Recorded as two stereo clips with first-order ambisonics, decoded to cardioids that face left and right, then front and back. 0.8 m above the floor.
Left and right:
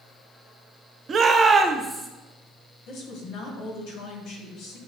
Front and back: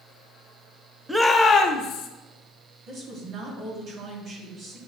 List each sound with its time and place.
1.1 s a shout: 100° right, 0.6 m; by 2.1 s 5° right, 0.9 m
2.9 s a woman speaking: 125° left, 1.9 m